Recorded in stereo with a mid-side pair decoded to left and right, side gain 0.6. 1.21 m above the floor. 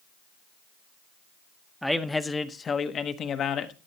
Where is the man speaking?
Straight ahead, 0.8 m; by 3.7 s 55° left, 1.3 m.